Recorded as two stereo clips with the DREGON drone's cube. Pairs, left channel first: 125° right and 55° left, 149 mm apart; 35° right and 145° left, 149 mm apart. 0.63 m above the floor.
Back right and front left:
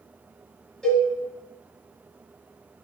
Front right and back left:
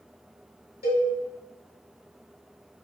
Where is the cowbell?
40° right, 1.3 m.